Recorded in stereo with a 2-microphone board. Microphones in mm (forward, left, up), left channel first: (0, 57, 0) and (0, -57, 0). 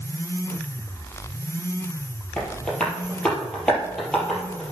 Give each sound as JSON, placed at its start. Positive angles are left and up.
{"t": 2.4, "sound": "tapping", "side_deg": 10, "distance_m": 3.5}